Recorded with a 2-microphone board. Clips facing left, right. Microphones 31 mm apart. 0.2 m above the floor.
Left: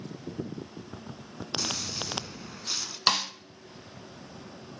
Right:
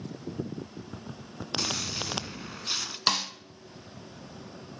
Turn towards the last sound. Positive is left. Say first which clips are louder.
# left 2 dB
turn(degrees=10)  # may be behind; listen again after turning